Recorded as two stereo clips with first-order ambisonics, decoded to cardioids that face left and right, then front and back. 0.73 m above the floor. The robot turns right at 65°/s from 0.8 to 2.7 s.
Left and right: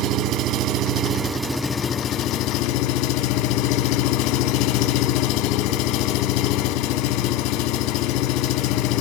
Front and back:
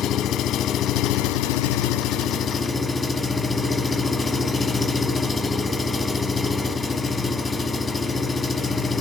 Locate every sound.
0.0 s an engine running: 50° right, 1.1 m; by 9.0 s 70° left, 1.1 m